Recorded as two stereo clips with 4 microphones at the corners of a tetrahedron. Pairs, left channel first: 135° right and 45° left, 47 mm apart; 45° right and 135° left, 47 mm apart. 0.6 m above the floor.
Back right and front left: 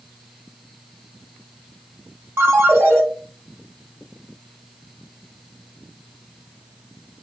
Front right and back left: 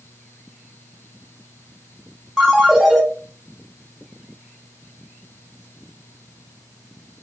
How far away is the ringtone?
About 1.5 m.